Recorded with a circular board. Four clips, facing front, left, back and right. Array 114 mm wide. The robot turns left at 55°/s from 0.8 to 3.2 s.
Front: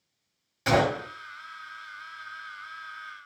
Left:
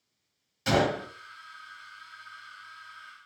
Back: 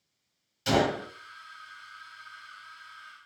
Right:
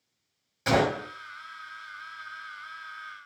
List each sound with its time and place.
0.7 s a gunshot: 25° right, 1.6 m; by 1.1 s 40° right, 1.6 m